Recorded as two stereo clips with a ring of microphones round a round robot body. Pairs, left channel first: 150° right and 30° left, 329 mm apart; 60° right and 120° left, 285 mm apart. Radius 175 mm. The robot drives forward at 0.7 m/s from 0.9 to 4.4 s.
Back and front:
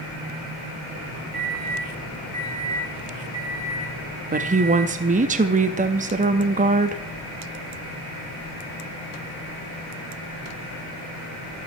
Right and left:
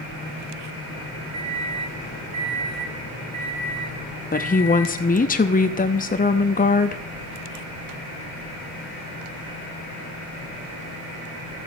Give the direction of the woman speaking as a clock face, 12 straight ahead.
1 o'clock.